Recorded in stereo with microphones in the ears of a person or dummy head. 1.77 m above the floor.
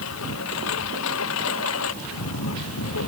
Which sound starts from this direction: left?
A lawn mower, at 0.0 s.